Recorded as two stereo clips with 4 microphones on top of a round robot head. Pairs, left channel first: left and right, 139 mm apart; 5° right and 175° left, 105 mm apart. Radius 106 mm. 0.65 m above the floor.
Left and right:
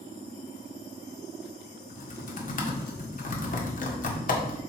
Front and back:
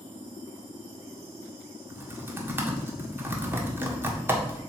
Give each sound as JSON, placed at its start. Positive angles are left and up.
{"t": 1.9, "sound": "typing on a keyboard", "azimuth_deg": 105, "distance_m": 1.7}